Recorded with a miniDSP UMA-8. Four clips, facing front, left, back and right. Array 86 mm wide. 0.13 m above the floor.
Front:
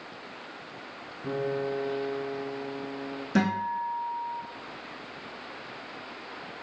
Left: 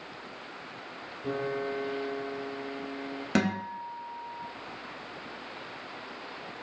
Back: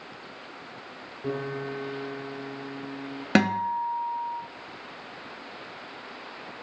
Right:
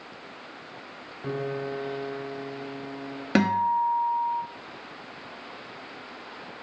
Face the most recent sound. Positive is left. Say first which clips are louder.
# right 8 dB, back 4 dB
turn(degrees=-160)